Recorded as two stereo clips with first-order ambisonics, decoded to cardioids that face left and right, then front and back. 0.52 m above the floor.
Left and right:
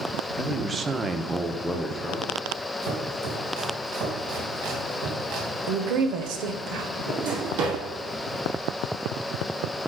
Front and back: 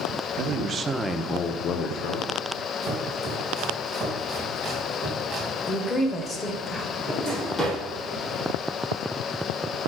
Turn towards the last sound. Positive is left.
turn(degrees=-80)